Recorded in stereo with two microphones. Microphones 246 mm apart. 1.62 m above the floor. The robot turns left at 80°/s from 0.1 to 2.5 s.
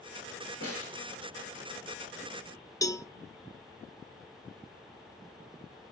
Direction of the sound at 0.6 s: 85° left.